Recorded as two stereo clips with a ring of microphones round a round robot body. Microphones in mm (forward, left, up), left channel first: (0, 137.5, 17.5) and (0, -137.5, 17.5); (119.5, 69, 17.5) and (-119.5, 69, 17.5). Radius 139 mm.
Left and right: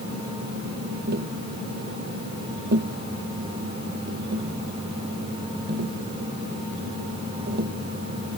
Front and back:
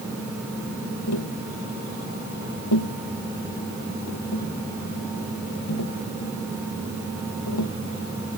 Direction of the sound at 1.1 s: 35° right.